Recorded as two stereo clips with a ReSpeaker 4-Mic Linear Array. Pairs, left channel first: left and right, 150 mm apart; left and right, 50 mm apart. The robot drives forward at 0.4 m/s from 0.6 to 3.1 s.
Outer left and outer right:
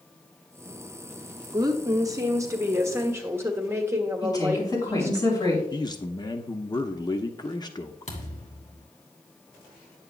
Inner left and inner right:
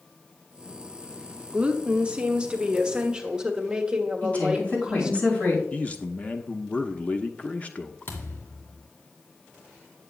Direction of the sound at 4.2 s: 25° left (ahead or behind).